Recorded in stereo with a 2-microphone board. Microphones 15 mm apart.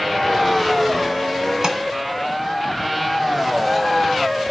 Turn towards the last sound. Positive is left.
turn(degrees=-50)  # may be behind; listen again after turning